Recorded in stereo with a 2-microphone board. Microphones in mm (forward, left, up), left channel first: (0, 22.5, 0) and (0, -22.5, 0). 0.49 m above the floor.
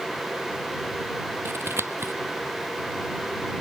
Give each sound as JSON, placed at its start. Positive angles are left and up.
{"t": 1.4, "sound": "scissors", "side_deg": -65}